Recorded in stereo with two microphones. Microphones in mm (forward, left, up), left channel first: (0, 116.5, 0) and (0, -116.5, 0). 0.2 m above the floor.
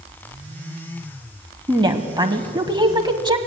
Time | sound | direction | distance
1.7 | a woman speaking | 20° right (ahead or behind) | 1.2 m